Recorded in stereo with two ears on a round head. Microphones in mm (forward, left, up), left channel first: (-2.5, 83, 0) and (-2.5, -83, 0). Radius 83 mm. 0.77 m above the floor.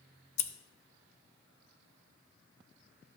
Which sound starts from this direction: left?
Scissors, at 0.4 s.